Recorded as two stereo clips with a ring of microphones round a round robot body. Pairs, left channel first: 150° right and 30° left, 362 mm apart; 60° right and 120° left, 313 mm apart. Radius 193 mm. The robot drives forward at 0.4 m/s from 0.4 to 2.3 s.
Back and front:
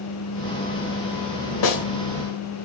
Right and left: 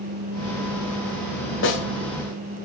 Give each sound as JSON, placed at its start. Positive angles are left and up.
{"t": 1.6, "sound": "a snare drum", "azimuth_deg": -115, "distance_m": 1.4}